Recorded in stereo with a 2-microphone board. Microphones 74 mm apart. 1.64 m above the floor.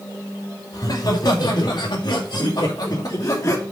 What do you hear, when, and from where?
0.7 s laughter: 60° left (ahead or behind), 3 m; by 3.6 s 45° left (ahead or behind), 3 m